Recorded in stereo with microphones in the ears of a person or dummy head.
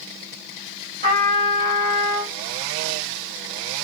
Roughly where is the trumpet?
Right.